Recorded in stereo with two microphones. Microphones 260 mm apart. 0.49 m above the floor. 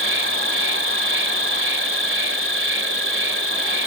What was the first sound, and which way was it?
An insect, 50° right (ahead or behind).